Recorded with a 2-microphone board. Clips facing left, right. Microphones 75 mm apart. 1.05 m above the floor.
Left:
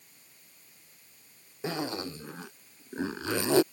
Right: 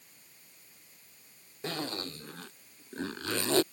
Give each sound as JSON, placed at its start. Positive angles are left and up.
{"t": 1.6, "sound": "a zipper", "side_deg": 15}